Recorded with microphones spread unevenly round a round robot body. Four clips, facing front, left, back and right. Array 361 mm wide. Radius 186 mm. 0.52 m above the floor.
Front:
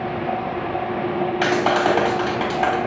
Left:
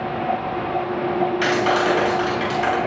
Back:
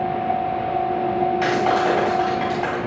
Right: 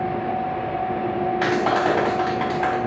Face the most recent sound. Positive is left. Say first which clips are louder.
# right 1 dB, front 3 dB
turn(degrees=-15)